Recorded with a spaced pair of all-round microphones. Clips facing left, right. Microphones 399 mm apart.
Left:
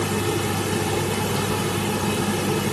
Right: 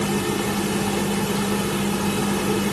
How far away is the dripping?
I don't hear dripping.